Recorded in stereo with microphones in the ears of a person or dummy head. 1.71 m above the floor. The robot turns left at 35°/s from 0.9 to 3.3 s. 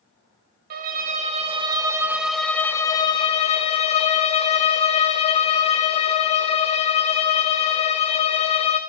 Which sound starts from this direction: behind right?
A violin, at 0.7 s.